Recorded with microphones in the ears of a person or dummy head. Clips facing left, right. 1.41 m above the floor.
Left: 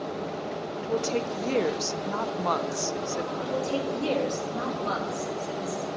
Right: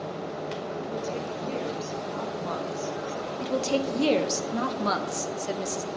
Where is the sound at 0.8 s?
70° left (ahead or behind), 0.7 m.